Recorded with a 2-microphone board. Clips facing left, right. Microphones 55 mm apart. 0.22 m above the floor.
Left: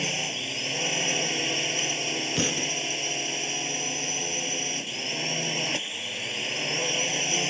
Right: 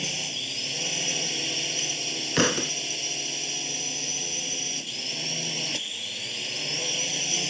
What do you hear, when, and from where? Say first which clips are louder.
0.0 s a drone: left 3 dB; 30° left (ahead or behind)
2.4 s a thud: right 8 dB; 70° right (ahead or behind)